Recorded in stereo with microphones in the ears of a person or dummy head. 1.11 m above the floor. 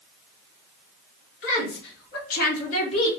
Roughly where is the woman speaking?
Left.